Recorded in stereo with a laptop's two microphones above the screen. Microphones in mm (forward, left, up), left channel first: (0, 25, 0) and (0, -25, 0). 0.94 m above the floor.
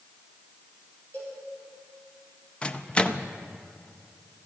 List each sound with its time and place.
1.1 s a cowbell: 35° left (ahead or behind), 4.5 m
2.6 s a microwave: 20° left (ahead or behind), 0.6 m